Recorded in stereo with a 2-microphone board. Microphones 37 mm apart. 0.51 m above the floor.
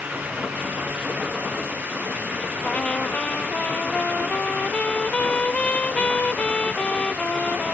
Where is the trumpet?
35° left (ahead or behind).